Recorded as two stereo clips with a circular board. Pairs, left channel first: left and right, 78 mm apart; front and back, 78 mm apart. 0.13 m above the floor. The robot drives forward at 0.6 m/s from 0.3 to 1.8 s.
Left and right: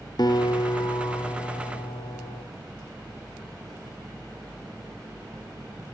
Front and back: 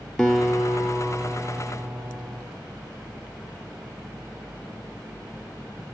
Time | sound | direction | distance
0.2 | a guitar | 85° left | 1.1 m